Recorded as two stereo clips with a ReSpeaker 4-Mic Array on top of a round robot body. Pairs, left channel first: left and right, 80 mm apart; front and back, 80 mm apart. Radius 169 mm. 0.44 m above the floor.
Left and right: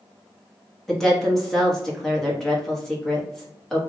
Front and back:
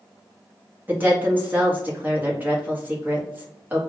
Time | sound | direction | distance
0.9 | a woman speaking | 170° left | 1.4 m